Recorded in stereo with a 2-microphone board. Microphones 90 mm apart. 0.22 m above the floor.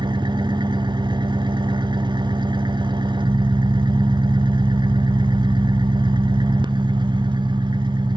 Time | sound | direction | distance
0.0 | an engine running | 60° right (ahead or behind) | 0.8 m